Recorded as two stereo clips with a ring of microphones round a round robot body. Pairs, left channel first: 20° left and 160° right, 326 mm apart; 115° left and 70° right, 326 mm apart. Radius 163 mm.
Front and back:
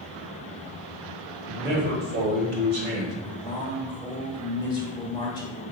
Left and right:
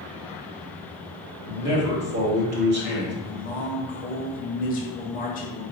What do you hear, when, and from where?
1.4 s a man speaking: 110° right, 1.2 m
3.2 s a man speaking: 85° left, 0.9 m